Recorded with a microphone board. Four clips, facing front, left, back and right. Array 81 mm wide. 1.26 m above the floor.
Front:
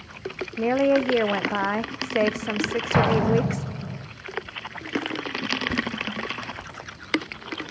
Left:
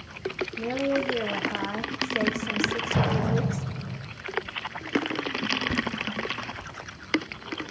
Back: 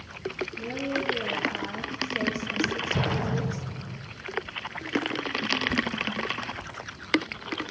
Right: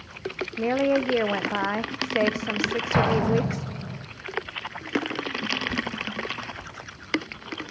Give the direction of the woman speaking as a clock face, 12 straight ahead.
1 o'clock.